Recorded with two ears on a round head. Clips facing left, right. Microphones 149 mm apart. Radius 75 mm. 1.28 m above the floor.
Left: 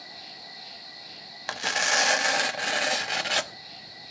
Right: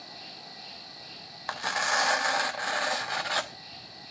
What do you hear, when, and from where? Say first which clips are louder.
0.0 s an insect: even; 10° left (ahead or behind), 4 m
1.5 s tearing paper: left 1 dB; 30° left (ahead or behind), 0.9 m